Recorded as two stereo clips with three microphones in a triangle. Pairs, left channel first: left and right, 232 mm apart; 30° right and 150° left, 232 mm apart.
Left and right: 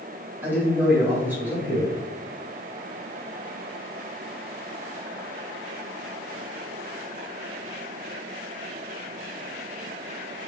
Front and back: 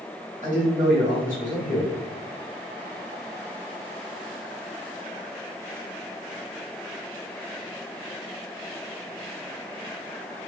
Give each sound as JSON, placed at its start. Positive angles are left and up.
{"t": 0.4, "sound": "a man speaking", "azimuth_deg": -170, "distance_m": 1.9}